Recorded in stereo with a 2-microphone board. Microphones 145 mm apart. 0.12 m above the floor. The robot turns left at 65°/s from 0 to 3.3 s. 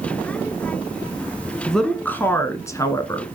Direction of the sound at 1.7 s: Centre (ahead or behind).